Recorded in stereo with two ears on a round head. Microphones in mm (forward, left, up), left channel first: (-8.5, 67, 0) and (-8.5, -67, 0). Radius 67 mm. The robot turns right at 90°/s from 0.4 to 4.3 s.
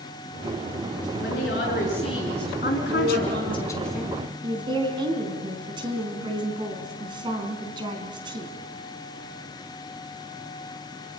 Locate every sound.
1.2 s a woman speaking: 65° left, 7.5 m; by 3.6 s 80° right, 7.5 m
2.6 s a woman speaking: 60° left, 4.5 m; by 8.5 s 150° right, 4.5 m